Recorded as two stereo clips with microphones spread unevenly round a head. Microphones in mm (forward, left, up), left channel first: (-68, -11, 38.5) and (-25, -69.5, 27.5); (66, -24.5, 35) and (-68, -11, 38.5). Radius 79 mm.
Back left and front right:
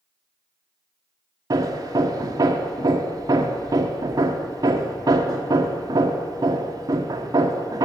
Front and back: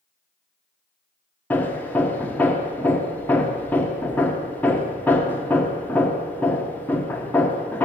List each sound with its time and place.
1.5 s hammering: 85° right, 1.1 m